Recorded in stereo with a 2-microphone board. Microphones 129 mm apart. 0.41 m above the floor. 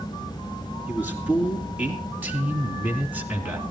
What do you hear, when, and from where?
0.9 s a man speaking: 15° right (ahead or behind), 5.5 m